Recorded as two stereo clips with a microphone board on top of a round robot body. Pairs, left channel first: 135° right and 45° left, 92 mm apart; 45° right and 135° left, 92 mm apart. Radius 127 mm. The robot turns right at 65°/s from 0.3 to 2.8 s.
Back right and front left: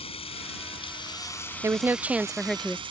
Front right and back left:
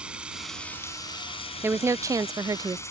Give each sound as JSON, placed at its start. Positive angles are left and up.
{"t": 0.0, "sound": "running water", "azimuth_deg": -145}
{"t": 1.6, "sound": "a woman speaking", "azimuth_deg": 80}